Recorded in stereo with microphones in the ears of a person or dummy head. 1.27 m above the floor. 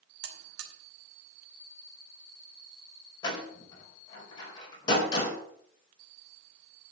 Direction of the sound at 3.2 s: 30° left (ahead or behind).